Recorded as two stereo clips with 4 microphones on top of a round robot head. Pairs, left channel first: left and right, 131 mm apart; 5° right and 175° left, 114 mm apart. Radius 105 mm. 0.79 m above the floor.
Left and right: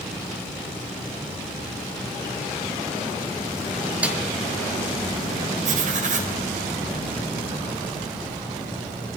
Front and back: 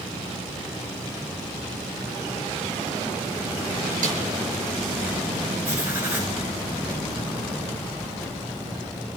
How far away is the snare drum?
About 6 m.